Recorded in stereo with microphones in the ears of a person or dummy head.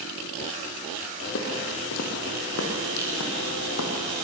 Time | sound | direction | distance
1.2 | footsteps | 60° left (ahead or behind) | 4 m